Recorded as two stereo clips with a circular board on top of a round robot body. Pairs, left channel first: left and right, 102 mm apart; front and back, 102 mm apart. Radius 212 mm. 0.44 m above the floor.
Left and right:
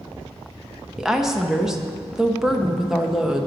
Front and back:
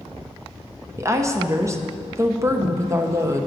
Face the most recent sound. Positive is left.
turn(degrees=-170)